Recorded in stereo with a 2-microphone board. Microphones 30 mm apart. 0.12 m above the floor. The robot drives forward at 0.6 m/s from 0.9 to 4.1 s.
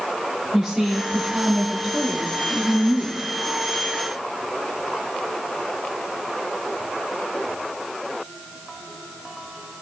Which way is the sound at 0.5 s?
15° right (ahead or behind).